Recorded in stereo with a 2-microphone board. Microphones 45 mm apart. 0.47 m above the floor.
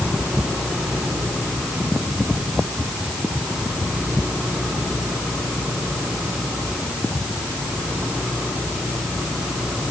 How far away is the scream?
No scream in this recording.